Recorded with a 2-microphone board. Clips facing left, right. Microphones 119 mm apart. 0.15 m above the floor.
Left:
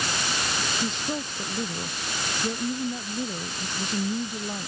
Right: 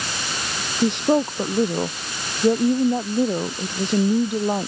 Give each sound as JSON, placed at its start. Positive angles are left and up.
{"t": 0.8, "sound": "a woman speaking", "side_deg": -70}